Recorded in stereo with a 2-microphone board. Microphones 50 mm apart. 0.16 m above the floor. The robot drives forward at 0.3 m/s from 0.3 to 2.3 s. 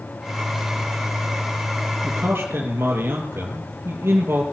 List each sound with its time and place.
2.0 s a man speaking: 40° right (ahead or behind), 3 m; by 4.4 s 45° right (ahead or behind), 3 m